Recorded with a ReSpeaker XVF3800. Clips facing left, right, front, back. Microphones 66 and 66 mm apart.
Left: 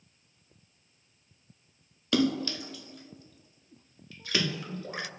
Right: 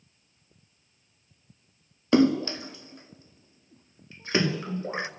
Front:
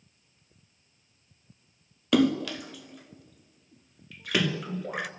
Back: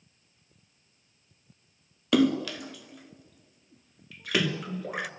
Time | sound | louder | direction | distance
2.1 | a splash | right 6 dB, even | 95° right | 0.9 m